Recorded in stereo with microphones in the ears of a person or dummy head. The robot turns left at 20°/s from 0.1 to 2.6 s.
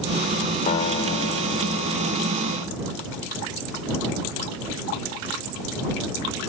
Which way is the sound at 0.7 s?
140° left.